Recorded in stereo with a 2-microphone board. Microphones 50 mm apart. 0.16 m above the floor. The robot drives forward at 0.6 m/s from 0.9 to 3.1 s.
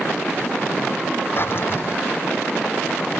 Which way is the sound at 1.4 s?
50° left (ahead or behind).